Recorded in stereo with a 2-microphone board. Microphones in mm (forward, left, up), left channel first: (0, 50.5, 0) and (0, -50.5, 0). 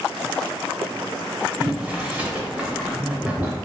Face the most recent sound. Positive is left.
turn(degrees=-10)  # may be behind; listen again after turning